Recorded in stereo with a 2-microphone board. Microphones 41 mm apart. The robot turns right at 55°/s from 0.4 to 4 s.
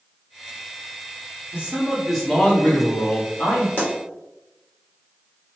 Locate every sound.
1.5 s a man speaking: 35° right, 1.2 m; by 3.7 s 85° left, 1.2 m
3.8 s a pop: 50° left (ahead or behind), 1.2 m; by 3.9 s 45° left (ahead or behind), 1.2 m